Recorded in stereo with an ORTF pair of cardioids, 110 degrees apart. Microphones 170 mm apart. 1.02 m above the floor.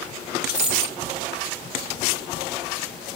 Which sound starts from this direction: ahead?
A dropped coin, at 0.5 s.